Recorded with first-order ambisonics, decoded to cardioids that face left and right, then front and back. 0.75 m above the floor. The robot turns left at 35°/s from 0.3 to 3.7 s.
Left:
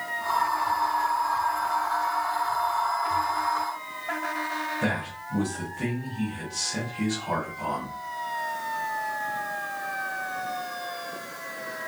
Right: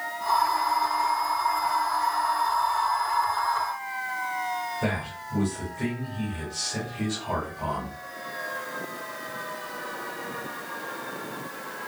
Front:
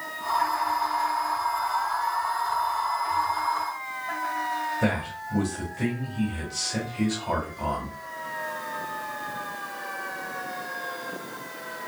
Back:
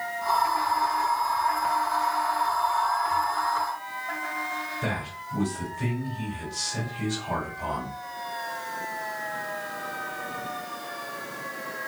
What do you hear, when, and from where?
4.8 s a man speaking: 10° left, 1.4 m